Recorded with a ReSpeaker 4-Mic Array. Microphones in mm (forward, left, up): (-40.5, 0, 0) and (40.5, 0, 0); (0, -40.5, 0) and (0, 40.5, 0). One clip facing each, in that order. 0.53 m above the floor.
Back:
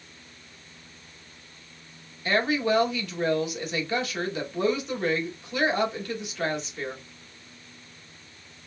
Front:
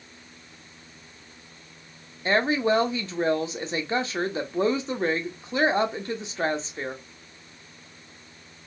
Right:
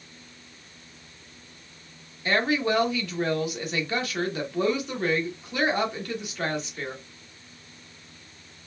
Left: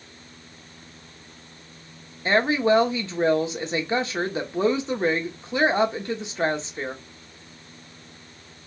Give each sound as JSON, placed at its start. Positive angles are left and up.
{"t": 2.2, "sound": "a woman speaking", "azimuth_deg": 40, "distance_m": 0.9}